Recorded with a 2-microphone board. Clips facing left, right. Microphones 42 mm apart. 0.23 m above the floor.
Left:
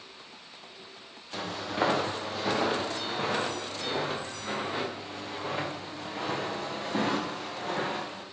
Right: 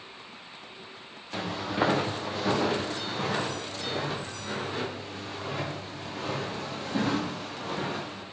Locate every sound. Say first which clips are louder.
1.3 s footsteps: right 2 dB; 10° right (ahead or behind), 2 m; by 8.2 s 30° left (ahead or behind), 5.5 m